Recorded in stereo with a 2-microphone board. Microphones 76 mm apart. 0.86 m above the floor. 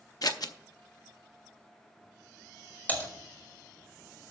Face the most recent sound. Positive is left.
turn(degrees=20)  # may be behind; listen again after turning